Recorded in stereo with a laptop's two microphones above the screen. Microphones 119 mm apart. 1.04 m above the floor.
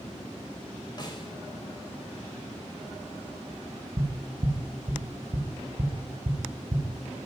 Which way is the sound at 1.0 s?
35° left (ahead or behind).